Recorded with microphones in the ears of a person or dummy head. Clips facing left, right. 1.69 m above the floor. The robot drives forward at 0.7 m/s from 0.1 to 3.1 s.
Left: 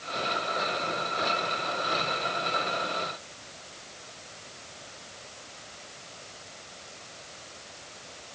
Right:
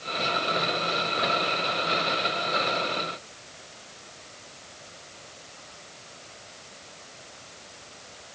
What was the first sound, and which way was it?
Only background noise.